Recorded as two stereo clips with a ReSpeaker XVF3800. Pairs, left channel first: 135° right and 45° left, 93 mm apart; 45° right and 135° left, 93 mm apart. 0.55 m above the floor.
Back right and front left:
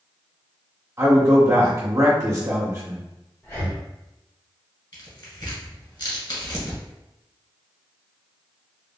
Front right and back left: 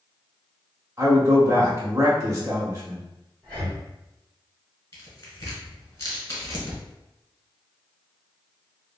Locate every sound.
1.0 s a man speaking: 90° left, 1.1 m
3.4 s breathing: 105° right, 1.5 m
4.9 s tearing paper: 100° right, 1.2 m